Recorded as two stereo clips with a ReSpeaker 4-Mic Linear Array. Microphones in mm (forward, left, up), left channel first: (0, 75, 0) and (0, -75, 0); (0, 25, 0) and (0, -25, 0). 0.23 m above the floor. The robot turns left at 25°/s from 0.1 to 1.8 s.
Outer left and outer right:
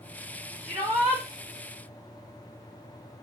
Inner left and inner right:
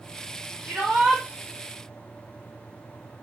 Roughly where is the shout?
Right.